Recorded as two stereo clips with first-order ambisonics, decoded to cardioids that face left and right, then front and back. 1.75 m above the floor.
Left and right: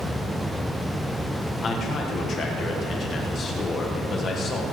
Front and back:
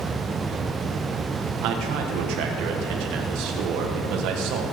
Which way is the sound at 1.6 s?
155° left.